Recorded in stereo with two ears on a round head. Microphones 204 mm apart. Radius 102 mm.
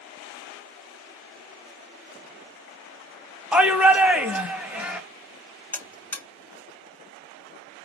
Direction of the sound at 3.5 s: 5° right (ahead or behind).